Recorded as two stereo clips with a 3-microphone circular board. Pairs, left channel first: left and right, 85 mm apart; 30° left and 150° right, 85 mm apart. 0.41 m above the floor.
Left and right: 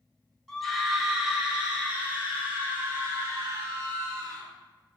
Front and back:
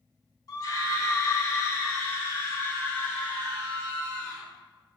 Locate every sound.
0.5 s a scream: 5° left, 1.8 m; by 4.5 s 40° right, 3 m